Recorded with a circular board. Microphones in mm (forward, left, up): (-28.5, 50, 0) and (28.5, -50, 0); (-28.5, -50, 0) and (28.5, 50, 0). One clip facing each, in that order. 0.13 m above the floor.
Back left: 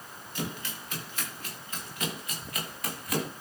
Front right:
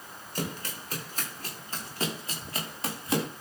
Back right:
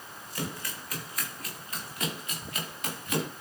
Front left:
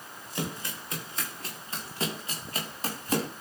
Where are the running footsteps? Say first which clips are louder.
Front right 1 dB, front left 2 dB; 10° right, 6 m; by 3.3 s 5° left, 6.5 m.